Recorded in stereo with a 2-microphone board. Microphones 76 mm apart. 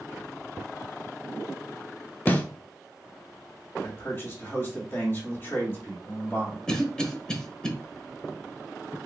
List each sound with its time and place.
2.3 s a snare drum: 25° left (ahead or behind), 0.5 m
3.8 s a man speaking: 30° left (ahead or behind), 1.9 m
6.7 s a cough: 10° left (ahead or behind), 0.9 m